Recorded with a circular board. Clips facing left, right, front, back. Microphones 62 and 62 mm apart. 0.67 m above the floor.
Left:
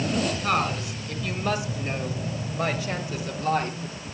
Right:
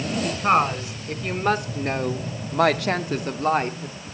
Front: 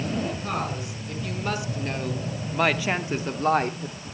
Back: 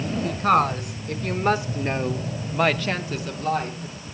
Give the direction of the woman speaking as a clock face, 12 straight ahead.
5 o'clock.